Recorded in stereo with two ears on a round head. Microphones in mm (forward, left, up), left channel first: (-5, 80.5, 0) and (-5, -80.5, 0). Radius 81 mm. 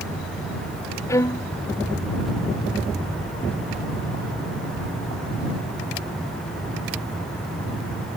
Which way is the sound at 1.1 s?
15° left (ahead or behind).